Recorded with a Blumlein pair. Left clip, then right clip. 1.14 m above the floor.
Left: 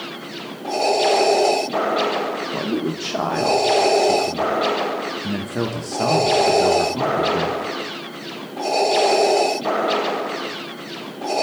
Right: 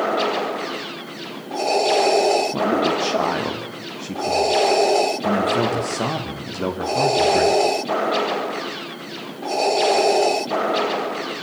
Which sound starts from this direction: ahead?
A man speaking, at 2.5 s.